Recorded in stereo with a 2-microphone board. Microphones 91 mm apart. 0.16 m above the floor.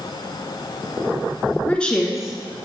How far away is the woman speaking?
About 2 m.